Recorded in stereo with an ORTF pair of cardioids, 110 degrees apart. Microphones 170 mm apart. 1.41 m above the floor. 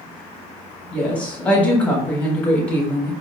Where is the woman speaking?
10° left, 1.4 m.